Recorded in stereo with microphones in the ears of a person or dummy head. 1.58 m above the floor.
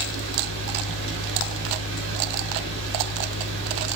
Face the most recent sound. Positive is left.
turn(degrees=-75)  # may be behind; listen again after turning